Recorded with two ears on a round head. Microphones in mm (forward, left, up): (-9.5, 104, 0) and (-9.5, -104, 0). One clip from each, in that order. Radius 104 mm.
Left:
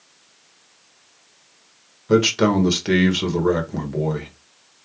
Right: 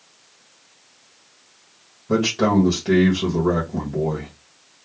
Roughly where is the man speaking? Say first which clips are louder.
Left 2 dB; left.